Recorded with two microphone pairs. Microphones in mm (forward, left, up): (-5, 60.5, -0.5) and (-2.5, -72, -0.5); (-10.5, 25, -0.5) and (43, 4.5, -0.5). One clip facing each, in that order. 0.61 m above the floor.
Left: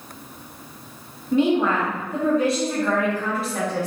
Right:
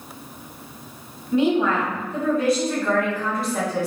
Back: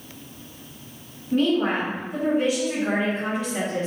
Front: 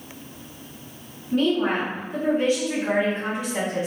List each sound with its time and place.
1.3 s a woman speaking: 100° left, 1.7 m; by 3.9 s 60° right, 1.1 m